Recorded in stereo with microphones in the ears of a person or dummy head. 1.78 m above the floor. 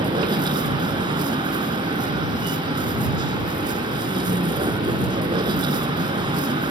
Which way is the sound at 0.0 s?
25° right (ahead or behind).